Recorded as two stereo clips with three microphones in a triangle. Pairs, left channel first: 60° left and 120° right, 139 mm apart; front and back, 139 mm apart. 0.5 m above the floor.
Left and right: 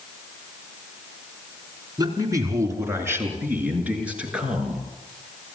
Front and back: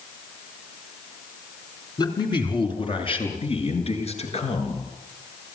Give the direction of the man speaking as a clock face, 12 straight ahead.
2 o'clock.